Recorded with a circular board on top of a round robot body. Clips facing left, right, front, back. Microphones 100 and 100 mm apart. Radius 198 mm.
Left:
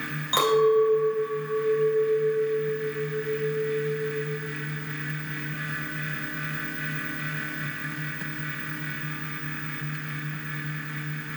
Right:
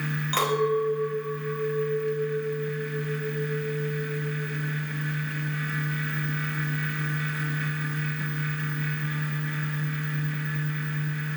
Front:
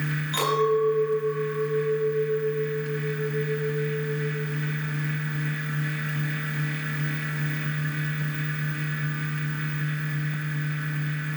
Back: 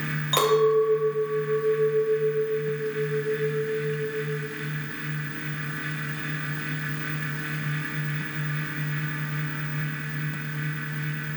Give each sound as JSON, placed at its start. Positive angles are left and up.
{"t": 0.3, "sound": "a clink", "azimuth_deg": 165, "distance_m": 3.0}